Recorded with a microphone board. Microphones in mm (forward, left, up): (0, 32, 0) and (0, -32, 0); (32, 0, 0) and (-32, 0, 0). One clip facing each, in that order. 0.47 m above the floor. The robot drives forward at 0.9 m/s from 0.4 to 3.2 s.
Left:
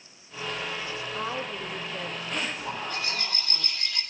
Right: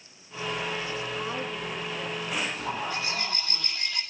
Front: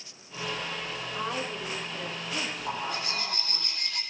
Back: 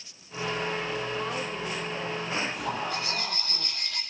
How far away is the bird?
About 6 m.